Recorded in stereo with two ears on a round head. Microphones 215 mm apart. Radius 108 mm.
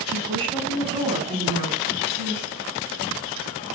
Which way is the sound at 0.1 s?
25° right (ahead or behind).